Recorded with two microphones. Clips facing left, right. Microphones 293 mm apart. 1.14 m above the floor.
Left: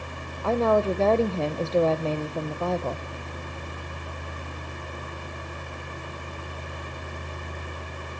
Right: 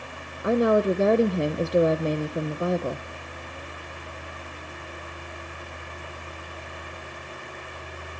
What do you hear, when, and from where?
0.4 s a woman speaking: 20° right (ahead or behind), 0.7 m